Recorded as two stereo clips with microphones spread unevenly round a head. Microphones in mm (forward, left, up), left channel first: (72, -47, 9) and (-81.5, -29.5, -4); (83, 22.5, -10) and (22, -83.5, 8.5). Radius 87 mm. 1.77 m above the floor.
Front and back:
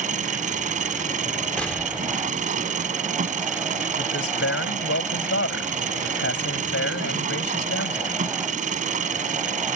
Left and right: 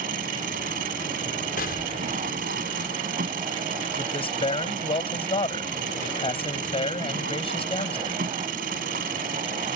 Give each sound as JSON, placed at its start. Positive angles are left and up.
{"t": 0.0, "sound": "an engine running", "azimuth_deg": -145}
{"t": 1.6, "sound": "an explosion", "azimuth_deg": 75}
{"t": 4.0, "sound": "a man speaking", "azimuth_deg": 15}